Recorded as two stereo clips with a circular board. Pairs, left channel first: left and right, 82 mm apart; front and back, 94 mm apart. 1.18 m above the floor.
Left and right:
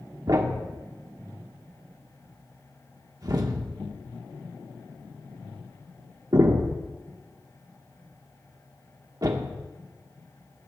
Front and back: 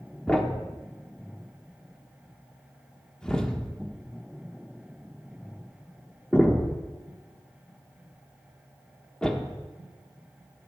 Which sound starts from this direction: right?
A thud, at 0.3 s.